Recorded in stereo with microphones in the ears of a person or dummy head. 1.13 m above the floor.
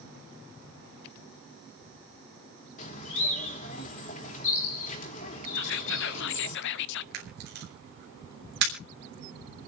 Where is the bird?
50° left (ahead or behind), 3 m.